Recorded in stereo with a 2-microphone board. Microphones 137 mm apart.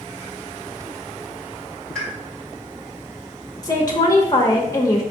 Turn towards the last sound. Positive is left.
turn(degrees=25)  # may be behind; listen again after turning